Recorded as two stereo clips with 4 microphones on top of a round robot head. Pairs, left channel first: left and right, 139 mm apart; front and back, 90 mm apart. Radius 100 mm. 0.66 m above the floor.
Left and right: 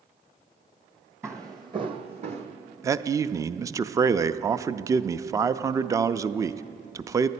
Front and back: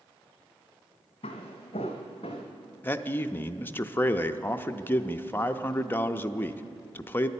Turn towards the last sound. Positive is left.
turn(degrees=-45)